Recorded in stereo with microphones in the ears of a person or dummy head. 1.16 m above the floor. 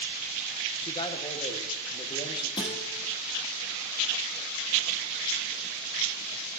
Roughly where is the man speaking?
Left.